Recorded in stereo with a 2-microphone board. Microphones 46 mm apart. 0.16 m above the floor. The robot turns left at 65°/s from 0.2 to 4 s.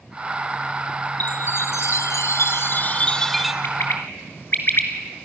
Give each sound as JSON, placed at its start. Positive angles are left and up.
{"t": 1.2, "sound": "a chime", "azimuth_deg": 145, "distance_m": 1.2}
{"t": 3.6, "sound": "a bird", "side_deg": 55, "distance_m": 1.9}